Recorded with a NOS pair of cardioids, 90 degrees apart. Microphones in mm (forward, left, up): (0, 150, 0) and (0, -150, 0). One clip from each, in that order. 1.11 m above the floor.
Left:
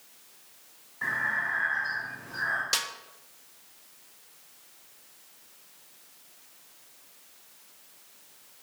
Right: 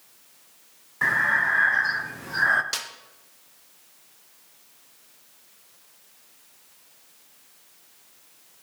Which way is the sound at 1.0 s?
45° right.